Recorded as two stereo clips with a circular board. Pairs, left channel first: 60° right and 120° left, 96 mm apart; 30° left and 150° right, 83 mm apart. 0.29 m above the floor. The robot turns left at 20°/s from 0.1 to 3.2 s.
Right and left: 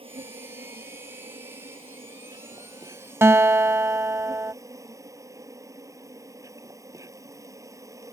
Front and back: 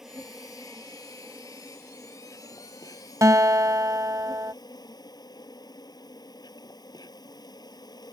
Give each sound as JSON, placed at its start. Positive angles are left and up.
{"t": 0.0, "sound": "an insect", "azimuth_deg": 125}
{"t": 3.2, "sound": "a guitar", "azimuth_deg": 175}